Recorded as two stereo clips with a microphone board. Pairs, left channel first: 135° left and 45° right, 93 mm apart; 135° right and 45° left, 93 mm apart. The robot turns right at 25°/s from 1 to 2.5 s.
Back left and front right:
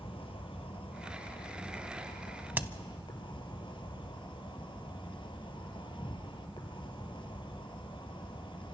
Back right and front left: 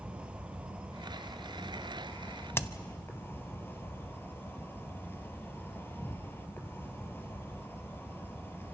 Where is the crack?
100° right, 0.5 m.